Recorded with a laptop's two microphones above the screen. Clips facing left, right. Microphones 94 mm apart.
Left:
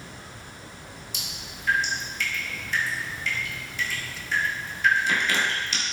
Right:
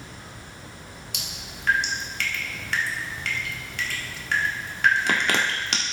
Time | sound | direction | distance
1.1 | dripping | 70° right (ahead or behind) | 1.6 m